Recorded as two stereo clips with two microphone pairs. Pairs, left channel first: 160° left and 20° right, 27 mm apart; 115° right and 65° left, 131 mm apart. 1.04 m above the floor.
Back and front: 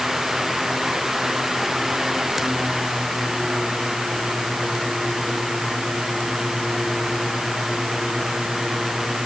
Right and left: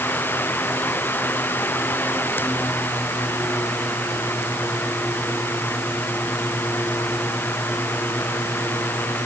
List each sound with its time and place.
Only background noise.